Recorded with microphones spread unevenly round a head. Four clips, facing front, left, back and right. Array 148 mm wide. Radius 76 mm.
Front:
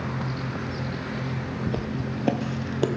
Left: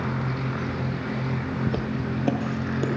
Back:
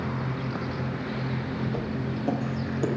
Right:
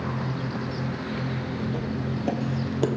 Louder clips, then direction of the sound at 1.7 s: Left 2 dB, front 1 dB; 45° left.